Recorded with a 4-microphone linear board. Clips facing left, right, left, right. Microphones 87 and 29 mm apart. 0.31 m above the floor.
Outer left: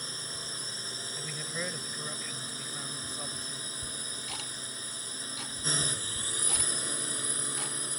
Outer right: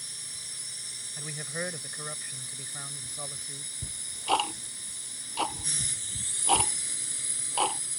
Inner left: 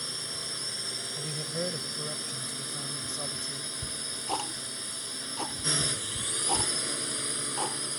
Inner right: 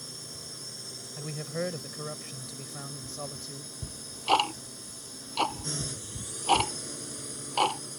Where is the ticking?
65° right (ahead or behind).